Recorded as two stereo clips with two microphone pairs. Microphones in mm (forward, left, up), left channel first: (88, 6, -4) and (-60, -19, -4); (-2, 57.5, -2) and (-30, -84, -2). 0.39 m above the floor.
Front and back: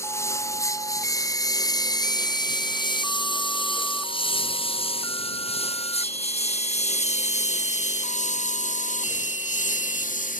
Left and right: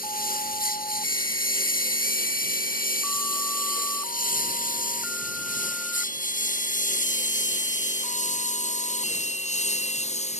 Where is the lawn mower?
80° left; by 10.4 s 40° left.